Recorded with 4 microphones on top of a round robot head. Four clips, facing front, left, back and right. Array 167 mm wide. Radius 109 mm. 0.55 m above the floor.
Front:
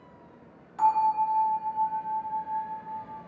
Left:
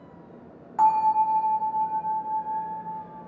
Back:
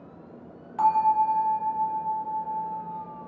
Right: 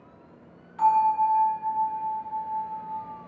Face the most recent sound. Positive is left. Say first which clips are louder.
# left 1 dB, back 2 dB
turn(degrees=115)